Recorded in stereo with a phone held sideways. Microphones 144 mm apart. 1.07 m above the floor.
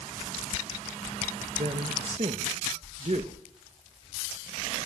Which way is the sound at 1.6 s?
50° right (ahead or behind).